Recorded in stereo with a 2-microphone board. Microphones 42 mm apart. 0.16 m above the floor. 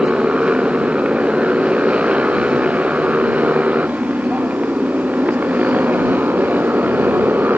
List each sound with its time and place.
0.0 s a motorcycle: 25° right (ahead or behind); by 7.6 s 45° right (ahead or behind)